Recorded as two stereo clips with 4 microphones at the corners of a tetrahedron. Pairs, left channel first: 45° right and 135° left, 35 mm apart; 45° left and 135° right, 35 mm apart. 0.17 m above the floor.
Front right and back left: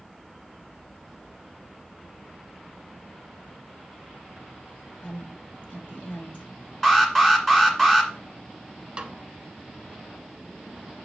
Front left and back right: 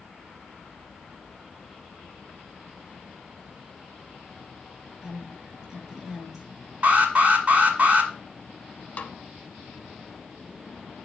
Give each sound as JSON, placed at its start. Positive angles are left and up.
{"t": 5.0, "sound": "a woman speaking", "azimuth_deg": -55, "distance_m": 2.0}
{"t": 6.8, "sound": "an alarm", "azimuth_deg": -120, "distance_m": 1.7}
{"t": 9.0, "sound": "a snare drum", "azimuth_deg": 80, "distance_m": 0.7}